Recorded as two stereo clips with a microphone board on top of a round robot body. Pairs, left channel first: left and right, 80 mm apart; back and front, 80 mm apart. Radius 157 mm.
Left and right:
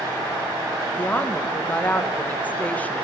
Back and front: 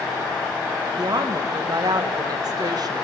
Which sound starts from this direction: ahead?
A woman speaking, at 1.0 s.